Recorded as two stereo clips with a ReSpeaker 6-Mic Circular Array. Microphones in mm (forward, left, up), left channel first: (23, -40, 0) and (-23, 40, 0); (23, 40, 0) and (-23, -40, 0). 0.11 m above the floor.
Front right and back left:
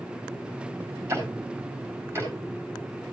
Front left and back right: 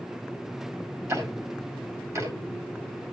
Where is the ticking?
175° right, 6.5 m.